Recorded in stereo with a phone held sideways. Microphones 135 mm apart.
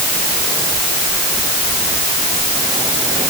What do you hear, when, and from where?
Only background noise.